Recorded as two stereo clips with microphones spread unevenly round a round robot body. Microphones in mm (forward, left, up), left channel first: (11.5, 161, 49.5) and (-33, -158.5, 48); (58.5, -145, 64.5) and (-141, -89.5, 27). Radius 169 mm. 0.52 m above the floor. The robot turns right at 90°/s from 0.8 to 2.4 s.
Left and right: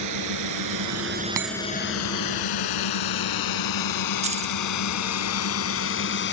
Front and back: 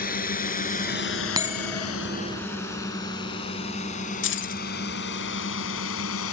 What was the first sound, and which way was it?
A drone, 60° right.